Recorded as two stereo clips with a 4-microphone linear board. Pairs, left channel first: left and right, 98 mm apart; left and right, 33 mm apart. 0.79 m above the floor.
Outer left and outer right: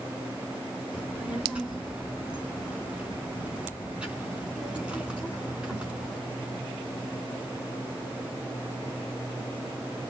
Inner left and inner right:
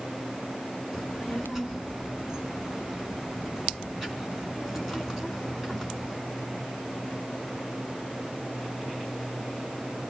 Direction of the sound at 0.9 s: 10° right (ahead or behind).